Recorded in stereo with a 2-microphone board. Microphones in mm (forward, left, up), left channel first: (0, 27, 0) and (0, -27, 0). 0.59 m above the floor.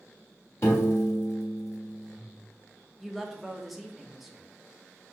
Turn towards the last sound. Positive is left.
turn(degrees=-5)  # may be behind; listen again after turning